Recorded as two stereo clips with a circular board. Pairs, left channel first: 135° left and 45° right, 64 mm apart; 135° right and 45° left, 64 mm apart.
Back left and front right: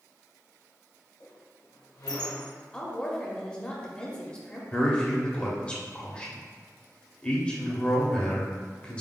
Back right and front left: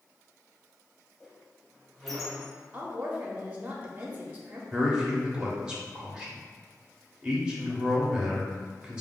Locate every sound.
1.2 s a squeak: 135° left, 1.0 m
2.7 s a woman speaking: 80° left, 0.7 m
4.7 s a man speaking: 100° left, 0.9 m